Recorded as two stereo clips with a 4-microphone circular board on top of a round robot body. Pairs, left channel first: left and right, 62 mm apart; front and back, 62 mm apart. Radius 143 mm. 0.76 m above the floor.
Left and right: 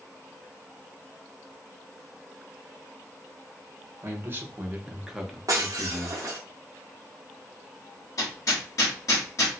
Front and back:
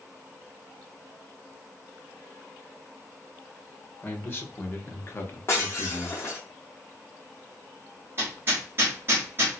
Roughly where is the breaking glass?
Ahead right.